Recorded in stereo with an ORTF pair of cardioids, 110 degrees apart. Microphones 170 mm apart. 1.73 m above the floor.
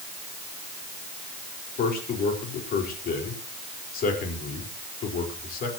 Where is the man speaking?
60° left, 4.5 m.